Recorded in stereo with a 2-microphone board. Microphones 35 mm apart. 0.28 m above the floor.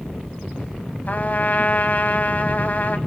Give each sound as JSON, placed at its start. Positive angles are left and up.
{"t": 1.1, "sound": "a trumpet", "side_deg": 45, "distance_m": 1.1}